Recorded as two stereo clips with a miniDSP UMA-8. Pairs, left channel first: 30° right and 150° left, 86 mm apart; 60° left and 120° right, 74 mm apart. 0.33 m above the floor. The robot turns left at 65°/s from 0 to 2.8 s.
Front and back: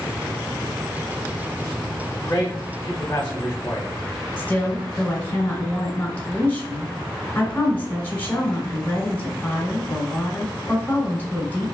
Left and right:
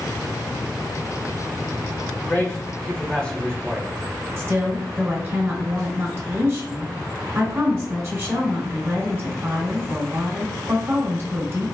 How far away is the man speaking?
About 0.9 m.